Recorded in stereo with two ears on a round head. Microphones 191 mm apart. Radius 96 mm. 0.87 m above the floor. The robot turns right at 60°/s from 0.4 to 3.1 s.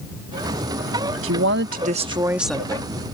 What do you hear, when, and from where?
1.2 s a woman speaking: 75° right; by 3.0 s 25° left